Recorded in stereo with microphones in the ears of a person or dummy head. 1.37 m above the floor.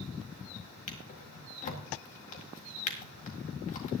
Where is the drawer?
35° left (ahead or behind), 1.8 m.